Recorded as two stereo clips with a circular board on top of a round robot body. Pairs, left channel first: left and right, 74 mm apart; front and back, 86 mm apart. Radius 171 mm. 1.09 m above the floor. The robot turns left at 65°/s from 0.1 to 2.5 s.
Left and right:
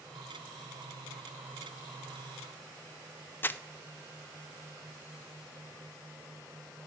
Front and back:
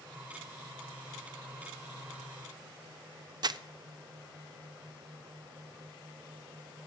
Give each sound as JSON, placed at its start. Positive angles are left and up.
{"t": 3.4, "sound": "crumpling", "azimuth_deg": 150, "distance_m": 0.5}